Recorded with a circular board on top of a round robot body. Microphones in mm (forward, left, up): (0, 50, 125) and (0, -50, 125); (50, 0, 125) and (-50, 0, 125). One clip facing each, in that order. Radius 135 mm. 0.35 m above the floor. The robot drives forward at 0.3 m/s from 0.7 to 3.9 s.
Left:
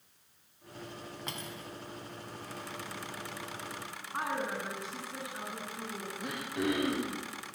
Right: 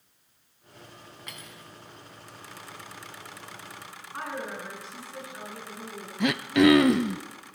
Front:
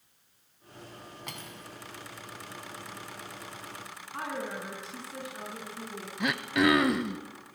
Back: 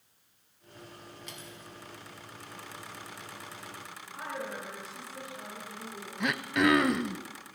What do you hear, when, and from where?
1.3 s cutlery clinking: 30° left, 2.5 m; by 1.7 s 35° left, 2.5 m
4.1 s a woman speaking: 15° left, 6 m
6.2 s throat clearing: 90° right, 0.7 m